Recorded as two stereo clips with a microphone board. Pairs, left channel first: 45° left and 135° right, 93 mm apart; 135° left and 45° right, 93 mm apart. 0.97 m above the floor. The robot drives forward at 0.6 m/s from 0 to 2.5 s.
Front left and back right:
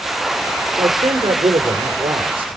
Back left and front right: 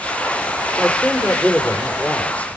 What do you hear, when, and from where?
0.8 s a man speaking: 140° right, 3 m; by 2.6 s 150° right, 4 m